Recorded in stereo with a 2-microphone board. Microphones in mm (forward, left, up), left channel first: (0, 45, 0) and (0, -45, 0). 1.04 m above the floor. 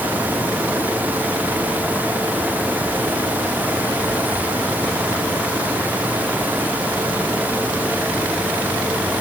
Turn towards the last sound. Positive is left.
No sound to turn to.